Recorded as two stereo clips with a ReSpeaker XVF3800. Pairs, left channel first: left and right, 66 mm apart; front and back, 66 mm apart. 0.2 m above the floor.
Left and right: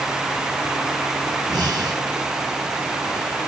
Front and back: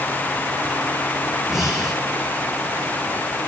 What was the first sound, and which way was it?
Breathing, 95° right.